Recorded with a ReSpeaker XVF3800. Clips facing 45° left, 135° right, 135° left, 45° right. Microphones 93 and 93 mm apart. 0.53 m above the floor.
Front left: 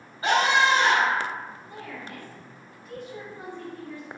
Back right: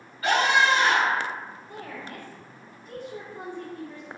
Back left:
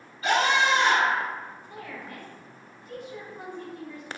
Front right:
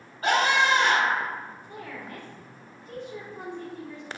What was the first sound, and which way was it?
A scream, 15° right.